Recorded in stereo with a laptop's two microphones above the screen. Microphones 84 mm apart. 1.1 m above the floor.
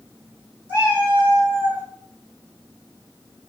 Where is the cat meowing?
25° right (ahead or behind), 1.6 m.